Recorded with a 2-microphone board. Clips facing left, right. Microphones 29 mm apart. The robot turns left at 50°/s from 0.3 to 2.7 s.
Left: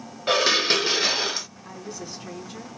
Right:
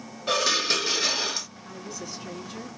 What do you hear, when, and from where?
0.3 s dishes clattering: 30° left (ahead or behind), 0.6 m; by 1.5 s 10° left (ahead or behind), 0.6 m
1.6 s a woman speaking: 40° left, 3 m; by 2.7 s 15° right, 3 m